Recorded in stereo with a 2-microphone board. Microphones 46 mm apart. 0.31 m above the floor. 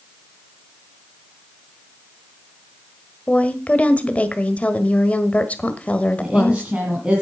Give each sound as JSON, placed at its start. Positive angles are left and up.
{"t": 3.3, "sound": "a woman speaking", "side_deg": 30, "distance_m": 1.2}
{"t": 6.2, "sound": "a woman speaking", "side_deg": -20, "distance_m": 3.0}